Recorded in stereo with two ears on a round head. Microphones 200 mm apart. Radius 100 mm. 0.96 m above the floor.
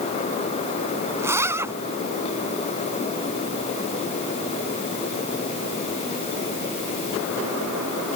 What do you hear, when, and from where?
1.2 s a zipper: 10° right (ahead or behind)